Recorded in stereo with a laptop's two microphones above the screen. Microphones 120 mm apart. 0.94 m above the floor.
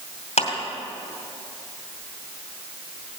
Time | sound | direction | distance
0.4 | a clap | 75° left (ahead or behind) | 2.5 m